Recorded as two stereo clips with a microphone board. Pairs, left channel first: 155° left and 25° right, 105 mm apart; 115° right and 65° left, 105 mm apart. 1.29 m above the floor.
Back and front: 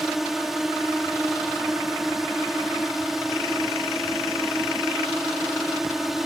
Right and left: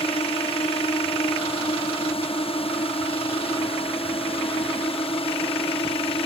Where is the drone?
110° right.